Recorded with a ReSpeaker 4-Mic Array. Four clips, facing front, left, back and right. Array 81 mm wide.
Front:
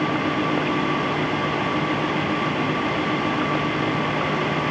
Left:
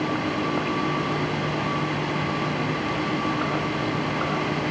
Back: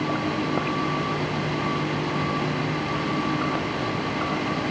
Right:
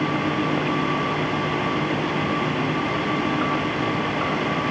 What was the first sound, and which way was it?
Only background noise.